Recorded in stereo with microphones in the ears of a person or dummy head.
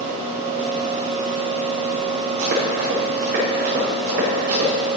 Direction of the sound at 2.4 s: 55° right (ahead or behind).